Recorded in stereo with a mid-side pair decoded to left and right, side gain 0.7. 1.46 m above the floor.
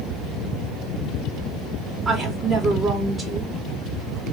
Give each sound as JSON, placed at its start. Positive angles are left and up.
{"t": 2.0, "sound": "a woman speaking", "azimuth_deg": -20, "distance_m": 2.5}